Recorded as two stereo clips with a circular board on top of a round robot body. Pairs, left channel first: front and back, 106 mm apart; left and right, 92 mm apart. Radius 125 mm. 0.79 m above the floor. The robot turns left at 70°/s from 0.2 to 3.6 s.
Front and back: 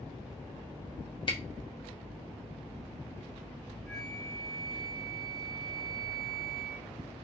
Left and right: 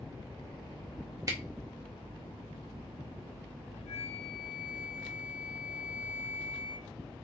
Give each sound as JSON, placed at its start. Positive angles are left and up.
{"t": 1.3, "sound": "a camera shutter", "azimuth_deg": -40, "distance_m": 1.8}
{"t": 3.9, "sound": "a flute", "azimuth_deg": 85, "distance_m": 1.1}